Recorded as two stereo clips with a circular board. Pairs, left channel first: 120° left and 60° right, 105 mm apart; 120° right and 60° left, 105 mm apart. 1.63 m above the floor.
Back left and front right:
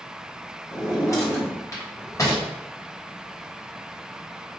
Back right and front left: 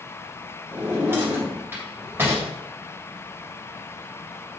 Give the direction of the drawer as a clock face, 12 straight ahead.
8 o'clock.